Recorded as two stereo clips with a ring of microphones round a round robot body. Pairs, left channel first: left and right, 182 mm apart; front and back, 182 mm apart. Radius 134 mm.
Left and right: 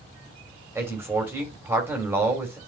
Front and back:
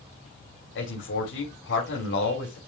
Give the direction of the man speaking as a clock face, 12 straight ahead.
12 o'clock.